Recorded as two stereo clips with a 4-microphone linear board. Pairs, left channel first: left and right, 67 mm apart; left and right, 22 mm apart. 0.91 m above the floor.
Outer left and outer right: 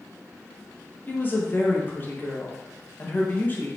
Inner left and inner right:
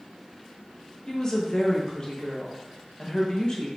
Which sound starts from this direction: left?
A woman speaking, at 1.1 s.